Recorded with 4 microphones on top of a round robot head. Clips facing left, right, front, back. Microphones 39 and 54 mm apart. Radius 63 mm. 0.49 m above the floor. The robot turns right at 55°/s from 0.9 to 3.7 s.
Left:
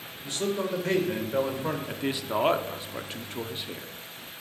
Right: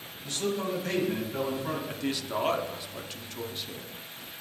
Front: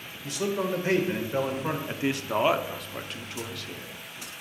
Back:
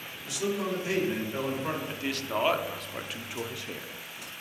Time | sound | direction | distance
0.2 | a man speaking | 35° left | 2.5 m
1.9 | a man speaking | 35° left | 0.9 m